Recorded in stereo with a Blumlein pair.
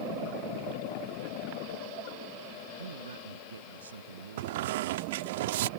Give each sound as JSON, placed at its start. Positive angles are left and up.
{"t": 2.8, "sound": "a man speaking", "azimuth_deg": -70}
{"t": 4.4, "sound": "a squeak", "azimuth_deg": -55}